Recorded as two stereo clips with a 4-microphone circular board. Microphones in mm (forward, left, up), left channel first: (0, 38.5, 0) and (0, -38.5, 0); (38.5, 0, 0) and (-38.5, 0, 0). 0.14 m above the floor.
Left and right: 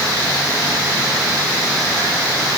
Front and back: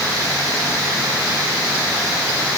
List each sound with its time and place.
Only background noise.